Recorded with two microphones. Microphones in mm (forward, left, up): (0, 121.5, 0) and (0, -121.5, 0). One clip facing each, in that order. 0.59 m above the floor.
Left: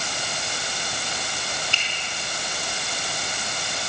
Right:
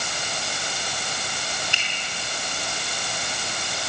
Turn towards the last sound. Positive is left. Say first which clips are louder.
# even
turn(degrees=-15)  # may be behind; listen again after turning